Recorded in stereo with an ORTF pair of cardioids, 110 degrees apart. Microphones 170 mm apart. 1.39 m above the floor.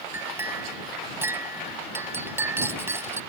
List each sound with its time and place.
0.1 s a clink: 15° right